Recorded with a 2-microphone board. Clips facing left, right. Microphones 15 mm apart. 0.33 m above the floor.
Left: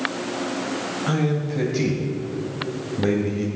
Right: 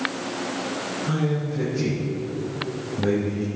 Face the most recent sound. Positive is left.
turn(degrees=25)  # may be behind; listen again after turning